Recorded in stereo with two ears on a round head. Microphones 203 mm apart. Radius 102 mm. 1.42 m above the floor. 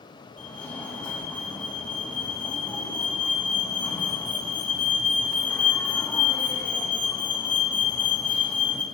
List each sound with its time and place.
0.4 s a fire alarm: 5° left (ahead or behind), 4.5 m